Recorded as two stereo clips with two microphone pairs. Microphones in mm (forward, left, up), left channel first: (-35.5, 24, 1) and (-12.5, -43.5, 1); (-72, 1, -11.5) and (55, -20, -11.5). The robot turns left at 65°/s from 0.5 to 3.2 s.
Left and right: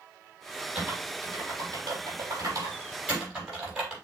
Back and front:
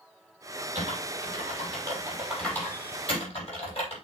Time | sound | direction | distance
0.8 | typing on a keyboard | 5° left | 7 m